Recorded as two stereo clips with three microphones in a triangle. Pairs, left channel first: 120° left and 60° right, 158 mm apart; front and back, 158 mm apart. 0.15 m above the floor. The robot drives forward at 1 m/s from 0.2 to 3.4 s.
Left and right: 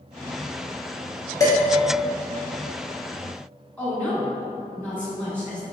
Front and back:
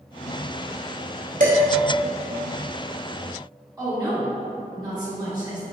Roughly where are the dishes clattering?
Behind.